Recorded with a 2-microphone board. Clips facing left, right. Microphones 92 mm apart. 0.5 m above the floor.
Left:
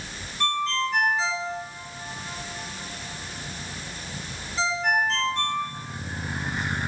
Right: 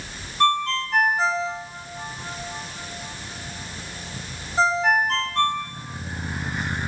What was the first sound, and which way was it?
A ringtone, 45° right (ahead or behind).